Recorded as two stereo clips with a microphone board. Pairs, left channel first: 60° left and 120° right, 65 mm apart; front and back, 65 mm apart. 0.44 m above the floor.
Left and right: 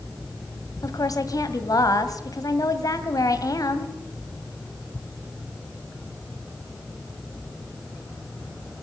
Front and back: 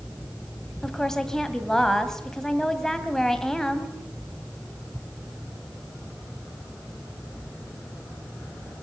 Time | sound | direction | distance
0.8 | a woman speaking | 80° left | 2 m